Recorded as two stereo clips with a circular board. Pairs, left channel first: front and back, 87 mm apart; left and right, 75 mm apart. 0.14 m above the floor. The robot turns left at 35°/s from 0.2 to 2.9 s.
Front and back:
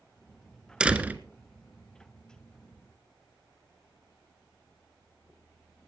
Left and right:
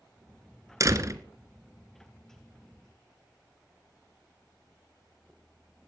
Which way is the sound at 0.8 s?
105° right.